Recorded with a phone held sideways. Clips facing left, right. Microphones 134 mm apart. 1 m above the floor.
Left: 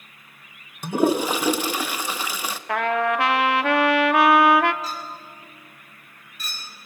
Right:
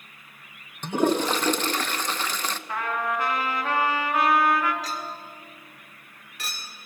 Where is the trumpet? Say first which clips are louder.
Left 7 dB; 75° left (ahead or behind), 0.9 m.